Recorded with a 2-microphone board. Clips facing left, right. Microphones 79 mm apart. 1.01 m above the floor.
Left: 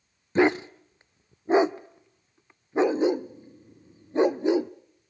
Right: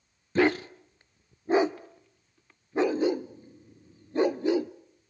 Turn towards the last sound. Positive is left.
turn(degrees=20)  # may be behind; listen again after turning